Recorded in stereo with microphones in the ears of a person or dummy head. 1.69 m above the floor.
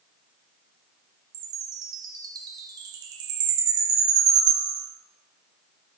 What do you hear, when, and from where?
1.3 s a chime: 25° right (ahead or behind), 3.5 m